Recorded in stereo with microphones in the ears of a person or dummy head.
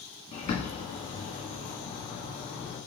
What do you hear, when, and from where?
0.3 s a bird: 35° left (ahead or behind), 1.1 m